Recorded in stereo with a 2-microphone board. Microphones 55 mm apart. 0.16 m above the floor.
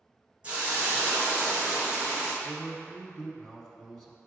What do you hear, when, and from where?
0.4 s a hiss: 25° right (ahead or behind), 1.5 m
2.4 s a man speaking: 10° left (ahead or behind), 1.0 m